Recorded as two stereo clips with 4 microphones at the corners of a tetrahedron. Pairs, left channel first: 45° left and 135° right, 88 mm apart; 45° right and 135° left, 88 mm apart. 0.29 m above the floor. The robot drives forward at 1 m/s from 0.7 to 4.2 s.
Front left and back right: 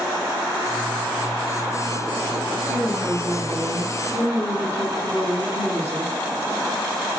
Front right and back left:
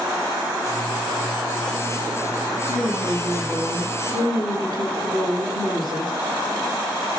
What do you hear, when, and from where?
2.7 s a woman speaking: 155° left, 1.7 m; by 6.1 s 170° left, 3 m